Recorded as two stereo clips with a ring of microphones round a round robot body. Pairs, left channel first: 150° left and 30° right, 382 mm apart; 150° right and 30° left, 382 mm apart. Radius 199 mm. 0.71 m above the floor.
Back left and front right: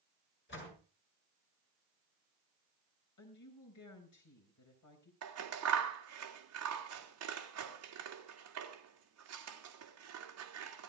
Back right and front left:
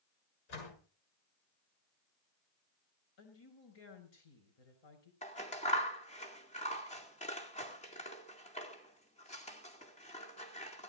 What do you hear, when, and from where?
0.5 s a door slam: 145° right, 7 m
3.2 s a woman speaking: 160° right, 5 m
5.2 s scissors: 80° right, 2.5 m